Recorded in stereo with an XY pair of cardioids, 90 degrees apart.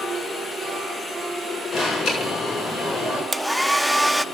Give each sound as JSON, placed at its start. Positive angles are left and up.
{"t": 1.7, "sound": "an alarm", "azimuth_deg": 60, "distance_m": 6.0}
{"t": 3.3, "sound": "a hair dryer", "azimuth_deg": 0, "distance_m": 0.5}